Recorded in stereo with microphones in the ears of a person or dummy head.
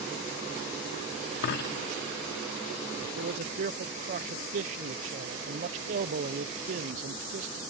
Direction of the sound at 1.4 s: 60° left (ahead or behind).